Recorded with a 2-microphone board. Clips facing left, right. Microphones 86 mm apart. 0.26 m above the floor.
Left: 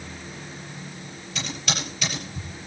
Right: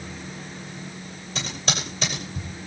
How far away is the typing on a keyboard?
About 6.5 m.